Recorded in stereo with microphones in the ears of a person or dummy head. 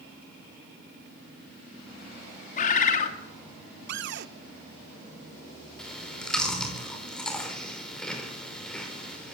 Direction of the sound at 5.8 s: 10° left (ahead or behind).